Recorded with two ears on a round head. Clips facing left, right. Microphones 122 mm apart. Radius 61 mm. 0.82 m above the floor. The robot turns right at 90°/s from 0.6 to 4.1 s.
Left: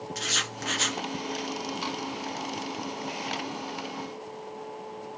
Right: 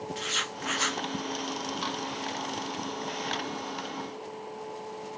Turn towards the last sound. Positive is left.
turn(degrees=85)